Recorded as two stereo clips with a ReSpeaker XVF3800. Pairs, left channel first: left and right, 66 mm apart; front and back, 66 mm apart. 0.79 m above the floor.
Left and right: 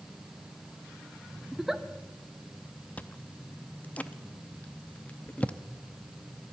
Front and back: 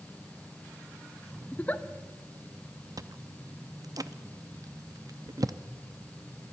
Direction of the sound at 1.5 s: 15° right.